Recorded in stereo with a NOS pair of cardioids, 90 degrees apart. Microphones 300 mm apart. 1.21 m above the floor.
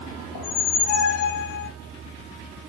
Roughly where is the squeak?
Ahead left.